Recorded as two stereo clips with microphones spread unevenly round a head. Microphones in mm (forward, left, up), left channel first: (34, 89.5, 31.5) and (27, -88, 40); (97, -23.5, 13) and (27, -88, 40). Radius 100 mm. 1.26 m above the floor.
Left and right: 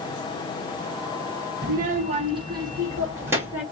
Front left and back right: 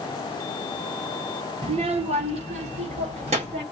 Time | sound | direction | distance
1.6 | a child speaking | 135° right | 0.9 m